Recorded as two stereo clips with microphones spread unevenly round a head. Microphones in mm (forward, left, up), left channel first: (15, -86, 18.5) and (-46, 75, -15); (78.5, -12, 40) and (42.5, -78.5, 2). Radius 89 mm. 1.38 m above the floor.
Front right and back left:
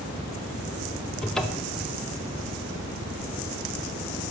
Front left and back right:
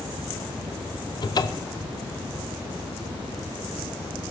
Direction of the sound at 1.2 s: 20° left.